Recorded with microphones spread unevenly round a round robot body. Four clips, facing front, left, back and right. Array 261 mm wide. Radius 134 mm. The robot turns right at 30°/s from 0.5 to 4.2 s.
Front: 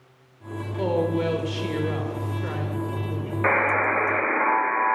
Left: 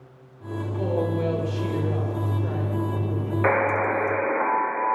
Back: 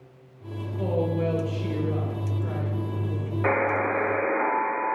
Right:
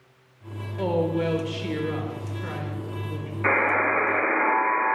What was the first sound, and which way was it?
A woman speaking, 30° right.